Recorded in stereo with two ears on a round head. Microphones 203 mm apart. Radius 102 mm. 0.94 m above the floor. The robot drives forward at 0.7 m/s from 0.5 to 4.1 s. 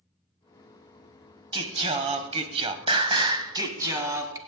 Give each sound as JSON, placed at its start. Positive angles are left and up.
{"t": 1.5, "sound": "singing", "side_deg": -20, "distance_m": 1.0}